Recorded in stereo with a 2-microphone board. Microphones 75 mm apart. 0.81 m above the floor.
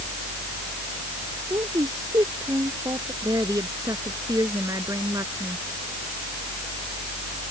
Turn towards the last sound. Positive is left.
turn(degrees=-50)  # may be behind; listen again after turning